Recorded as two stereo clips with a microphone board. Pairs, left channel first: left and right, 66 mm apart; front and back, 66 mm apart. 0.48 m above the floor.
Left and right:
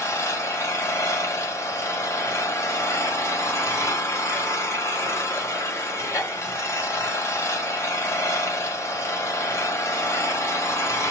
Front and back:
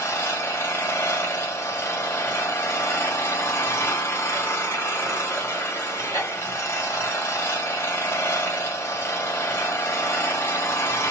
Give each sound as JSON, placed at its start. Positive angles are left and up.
{"t": 0.0, "sound": "an engine running", "azimuth_deg": 50, "distance_m": 1.4}